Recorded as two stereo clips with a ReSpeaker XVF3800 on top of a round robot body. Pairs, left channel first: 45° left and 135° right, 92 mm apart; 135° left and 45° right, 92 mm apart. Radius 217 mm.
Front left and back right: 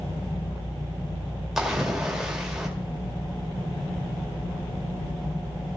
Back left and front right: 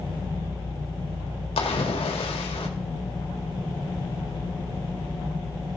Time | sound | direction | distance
1.6 | a splash | 140° left | 2 m